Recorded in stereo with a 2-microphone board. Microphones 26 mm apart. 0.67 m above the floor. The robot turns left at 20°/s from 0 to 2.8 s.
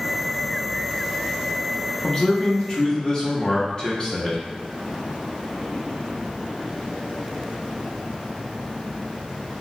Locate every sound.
2.0 s a man speaking: 35° left (ahead or behind), 0.7 m; by 4.4 s 30° left (ahead or behind), 0.7 m